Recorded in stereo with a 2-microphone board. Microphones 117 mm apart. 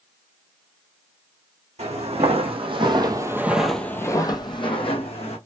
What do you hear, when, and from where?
1.8 s footsteps: 65° right (ahead or behind), 1.1 m; by 5.4 s 60° left (ahead or behind), 1.1 m